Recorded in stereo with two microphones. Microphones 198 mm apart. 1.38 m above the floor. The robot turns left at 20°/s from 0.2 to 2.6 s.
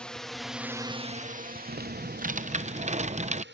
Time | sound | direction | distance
0.0 | a drone | 5° left (ahead or behind) | ?
1.7 | typing on a keyboard | 55° right (ahead or behind) | ?